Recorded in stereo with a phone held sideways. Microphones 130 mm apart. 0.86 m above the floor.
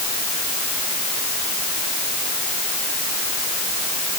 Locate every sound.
Only background noise.